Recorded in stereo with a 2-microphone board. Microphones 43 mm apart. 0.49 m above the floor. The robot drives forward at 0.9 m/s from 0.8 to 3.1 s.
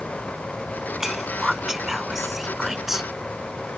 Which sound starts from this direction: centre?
Whispering, at 1.0 s.